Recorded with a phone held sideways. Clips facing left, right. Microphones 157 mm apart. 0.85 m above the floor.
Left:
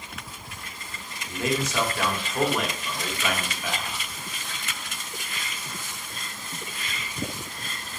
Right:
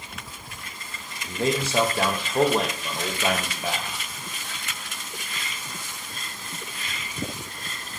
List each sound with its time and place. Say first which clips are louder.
1.2 s a man speaking: right 2 dB; 30° right (ahead or behind), 0.5 m